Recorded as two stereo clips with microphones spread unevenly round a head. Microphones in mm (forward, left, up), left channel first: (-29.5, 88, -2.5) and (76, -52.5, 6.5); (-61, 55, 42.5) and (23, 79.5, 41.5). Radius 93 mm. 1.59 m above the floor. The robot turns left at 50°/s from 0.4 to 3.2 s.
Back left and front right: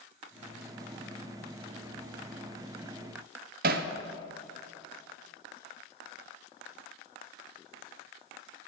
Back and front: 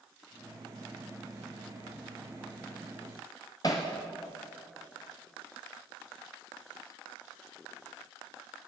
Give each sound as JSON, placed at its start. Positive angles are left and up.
{"t": 3.6, "sound": "hammering", "azimuth_deg": -95, "distance_m": 0.7}